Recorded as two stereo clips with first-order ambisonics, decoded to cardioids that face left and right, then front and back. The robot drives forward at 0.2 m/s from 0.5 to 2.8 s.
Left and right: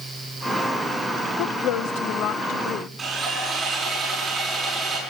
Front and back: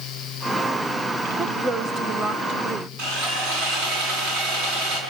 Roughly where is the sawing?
Behind.